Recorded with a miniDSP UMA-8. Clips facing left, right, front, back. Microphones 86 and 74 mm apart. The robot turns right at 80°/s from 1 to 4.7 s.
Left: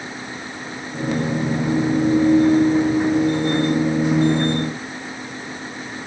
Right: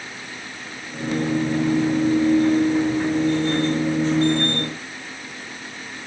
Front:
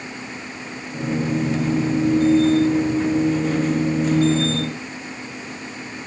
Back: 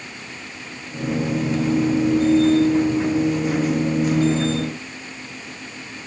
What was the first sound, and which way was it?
Only background noise.